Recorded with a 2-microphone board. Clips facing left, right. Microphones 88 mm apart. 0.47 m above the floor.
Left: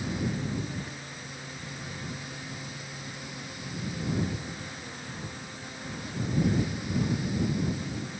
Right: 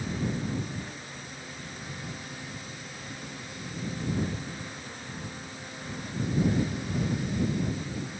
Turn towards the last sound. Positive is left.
No sound to turn to.